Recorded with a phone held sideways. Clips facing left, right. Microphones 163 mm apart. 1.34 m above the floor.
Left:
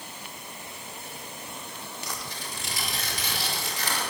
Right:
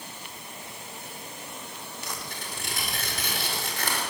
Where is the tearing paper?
55° right (ahead or behind), 5 m.